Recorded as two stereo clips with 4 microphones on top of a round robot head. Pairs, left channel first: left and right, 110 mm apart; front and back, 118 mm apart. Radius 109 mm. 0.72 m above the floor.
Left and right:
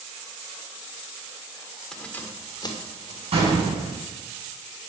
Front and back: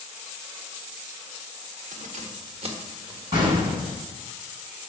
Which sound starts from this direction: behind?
Keys jangling, at 1.9 s.